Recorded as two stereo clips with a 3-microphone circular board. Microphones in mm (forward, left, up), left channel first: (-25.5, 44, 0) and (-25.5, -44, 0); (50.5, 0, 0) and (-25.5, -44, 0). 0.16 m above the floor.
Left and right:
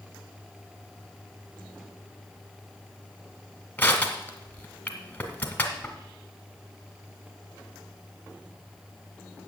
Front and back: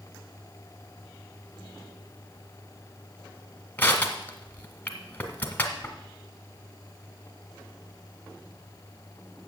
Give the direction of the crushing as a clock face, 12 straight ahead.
10 o'clock.